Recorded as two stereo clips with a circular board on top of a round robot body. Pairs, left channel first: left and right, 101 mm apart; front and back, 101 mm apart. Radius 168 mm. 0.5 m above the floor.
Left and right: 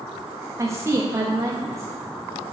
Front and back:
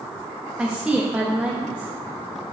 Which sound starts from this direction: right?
A woman speaking, at 0.6 s.